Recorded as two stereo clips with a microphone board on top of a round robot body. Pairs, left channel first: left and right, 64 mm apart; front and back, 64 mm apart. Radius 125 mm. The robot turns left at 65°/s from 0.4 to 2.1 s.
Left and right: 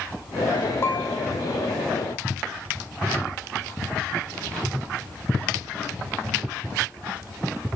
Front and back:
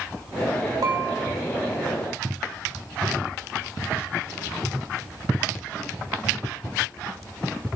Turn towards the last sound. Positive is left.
turn(degrees=65)